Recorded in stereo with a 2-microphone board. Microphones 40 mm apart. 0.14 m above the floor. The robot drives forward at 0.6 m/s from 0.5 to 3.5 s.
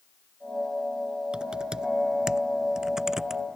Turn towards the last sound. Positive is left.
turn(degrees=-10)  # may be behind; listen again after turning